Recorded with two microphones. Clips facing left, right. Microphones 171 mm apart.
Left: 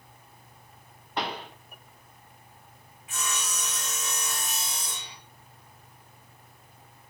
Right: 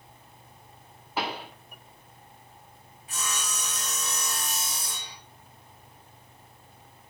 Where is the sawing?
35° right (ahead or behind), 1.1 m.